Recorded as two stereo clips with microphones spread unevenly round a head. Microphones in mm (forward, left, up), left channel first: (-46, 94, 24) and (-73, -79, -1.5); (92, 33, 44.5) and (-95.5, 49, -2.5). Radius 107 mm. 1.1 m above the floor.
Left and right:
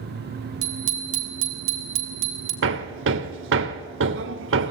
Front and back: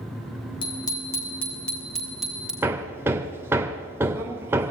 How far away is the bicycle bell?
About 2.5 m.